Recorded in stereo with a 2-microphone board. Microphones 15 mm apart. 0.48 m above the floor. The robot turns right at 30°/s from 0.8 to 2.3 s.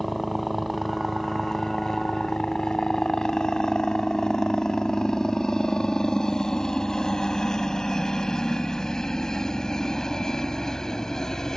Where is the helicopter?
5° left (ahead or behind); by 11.6 s 35° left (ahead or behind).